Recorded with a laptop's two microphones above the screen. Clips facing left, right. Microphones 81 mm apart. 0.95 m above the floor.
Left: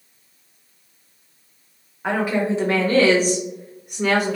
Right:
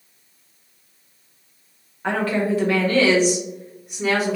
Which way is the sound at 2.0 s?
5° left (ahead or behind).